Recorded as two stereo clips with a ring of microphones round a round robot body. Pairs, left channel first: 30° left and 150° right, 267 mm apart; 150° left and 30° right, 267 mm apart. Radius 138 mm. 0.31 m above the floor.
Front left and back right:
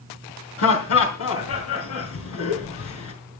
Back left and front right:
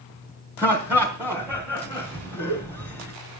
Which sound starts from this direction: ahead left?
Laughter, at 0.6 s.